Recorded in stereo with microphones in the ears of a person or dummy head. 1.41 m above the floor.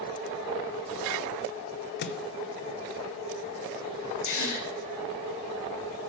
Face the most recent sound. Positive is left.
turn(degrees=75)  # may be behind; listen again after turning